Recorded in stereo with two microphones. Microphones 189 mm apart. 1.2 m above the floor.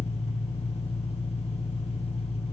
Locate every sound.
0.0 s an engine running: 35° left (ahead or behind), 5 m